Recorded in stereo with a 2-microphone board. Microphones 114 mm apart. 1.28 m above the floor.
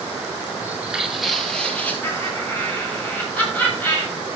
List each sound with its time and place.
0.6 s footsteps: 20° right (ahead or behind), 1.6 m; by 1.9 s 15° left (ahead or behind), 2.5 m
2.0 s laughter: 15° left (ahead or behind), 6.5 m